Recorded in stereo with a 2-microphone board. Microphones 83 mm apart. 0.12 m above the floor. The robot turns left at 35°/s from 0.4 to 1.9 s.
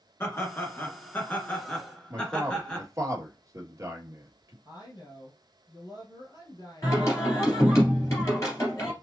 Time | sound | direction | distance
0.2 | laughter | 75° left | 1.7 m
2.1 | a man speaking | 40° right (ahead or behind) | 1.8 m
4.7 | a woman speaking | 55° left (ahead or behind) | 3 m
6.8 | singing | 35° left (ahead or behind) | 3 m